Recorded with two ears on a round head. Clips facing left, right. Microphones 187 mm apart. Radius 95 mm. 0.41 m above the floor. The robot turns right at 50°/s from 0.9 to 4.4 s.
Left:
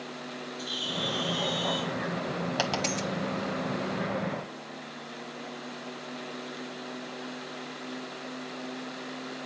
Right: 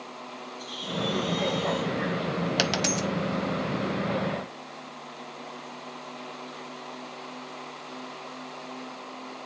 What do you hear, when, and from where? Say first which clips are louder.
0.6 s a bird: right 5 dB; 85° left, 5.5 m; by 1.9 s 140° left, 5.5 m
2.6 s a dropped coin: right 3 dB; 25° right (ahead or behind), 0.9 m; by 3.1 s centre (ahead or behind), 0.9 m